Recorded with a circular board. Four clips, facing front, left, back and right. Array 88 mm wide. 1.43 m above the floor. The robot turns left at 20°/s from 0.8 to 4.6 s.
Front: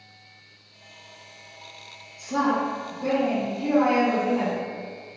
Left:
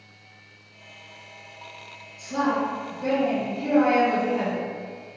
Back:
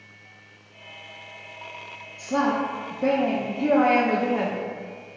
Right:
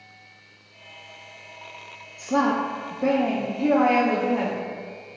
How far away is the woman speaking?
About 0.6 m.